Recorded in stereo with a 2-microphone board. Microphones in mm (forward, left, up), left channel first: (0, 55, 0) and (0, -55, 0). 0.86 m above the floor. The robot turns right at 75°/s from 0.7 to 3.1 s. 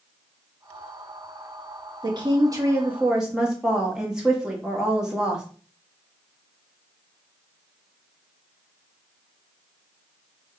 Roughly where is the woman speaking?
Right.